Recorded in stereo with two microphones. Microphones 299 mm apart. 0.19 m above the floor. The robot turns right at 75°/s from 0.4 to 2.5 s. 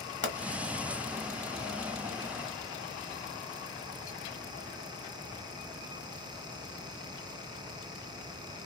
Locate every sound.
0.2 s a pop: 35° left (ahead or behind), 1.0 m